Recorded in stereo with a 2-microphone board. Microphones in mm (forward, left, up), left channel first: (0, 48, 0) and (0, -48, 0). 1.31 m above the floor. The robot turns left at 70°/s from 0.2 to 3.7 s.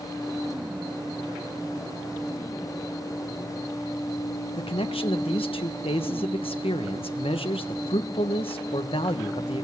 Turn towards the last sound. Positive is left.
turn(degrees=80)